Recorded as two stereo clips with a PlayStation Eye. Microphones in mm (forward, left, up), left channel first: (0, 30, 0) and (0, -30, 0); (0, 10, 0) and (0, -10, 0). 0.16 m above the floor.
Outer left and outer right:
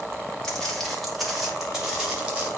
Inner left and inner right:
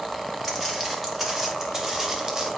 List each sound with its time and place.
0.4 s footsteps: 10° left (ahead or behind), 4 m; by 2.5 s 20° right (ahead or behind), 5 m